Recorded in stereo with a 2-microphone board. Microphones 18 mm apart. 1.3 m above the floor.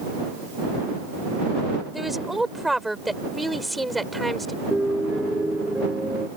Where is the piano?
70° right (ahead or behind).